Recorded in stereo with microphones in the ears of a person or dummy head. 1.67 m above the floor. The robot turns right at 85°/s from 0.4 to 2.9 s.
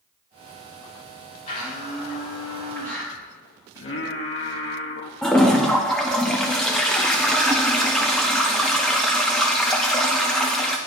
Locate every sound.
1.5 s a blender: 45° left, 2.5 m; by 3.1 s 170° left, 2.5 m
3.8 s singing: 60° left (ahead or behind), 0.9 m
5.2 s a toilet flushing: 5° left (ahead or behind), 0.6 m